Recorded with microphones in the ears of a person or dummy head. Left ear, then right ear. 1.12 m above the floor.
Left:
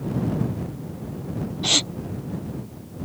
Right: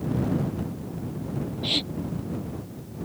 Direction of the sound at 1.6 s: 60° left (ahead or behind).